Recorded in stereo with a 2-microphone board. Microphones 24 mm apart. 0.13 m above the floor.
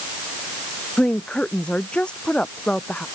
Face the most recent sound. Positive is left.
turn(degrees=45)  # may be behind; listen again after turning